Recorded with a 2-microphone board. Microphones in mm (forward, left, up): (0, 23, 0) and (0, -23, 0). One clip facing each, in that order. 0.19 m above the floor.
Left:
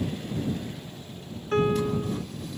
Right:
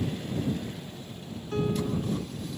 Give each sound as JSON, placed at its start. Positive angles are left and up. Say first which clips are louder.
{"t": 1.5, "sound": "a piano", "louder": "left 5 dB", "side_deg": 55}